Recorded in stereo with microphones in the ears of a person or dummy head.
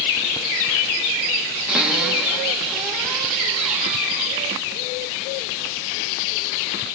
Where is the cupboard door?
5° right (ahead or behind), 1.8 m.